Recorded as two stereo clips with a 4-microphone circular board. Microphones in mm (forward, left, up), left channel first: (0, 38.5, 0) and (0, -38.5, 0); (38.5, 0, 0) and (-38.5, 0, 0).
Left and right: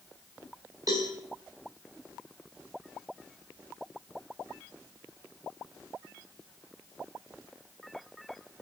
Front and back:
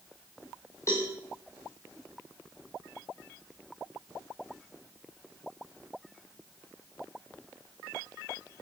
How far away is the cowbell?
About 8 m.